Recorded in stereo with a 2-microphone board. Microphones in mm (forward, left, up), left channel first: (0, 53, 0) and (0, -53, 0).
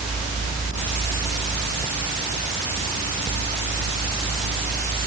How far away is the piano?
I don't hear a piano.